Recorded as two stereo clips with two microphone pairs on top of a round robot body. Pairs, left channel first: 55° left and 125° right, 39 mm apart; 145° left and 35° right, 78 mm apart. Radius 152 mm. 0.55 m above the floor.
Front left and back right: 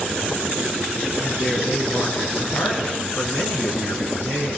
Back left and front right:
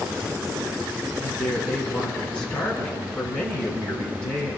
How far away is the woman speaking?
About 7.5 m.